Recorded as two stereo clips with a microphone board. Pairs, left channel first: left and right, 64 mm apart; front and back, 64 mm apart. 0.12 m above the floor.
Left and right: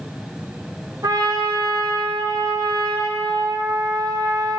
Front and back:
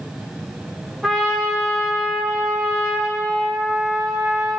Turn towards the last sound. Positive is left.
turn(degrees=-90)